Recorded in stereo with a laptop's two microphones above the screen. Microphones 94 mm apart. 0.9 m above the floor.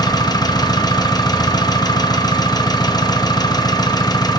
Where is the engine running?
45° left (ahead or behind), 0.7 m.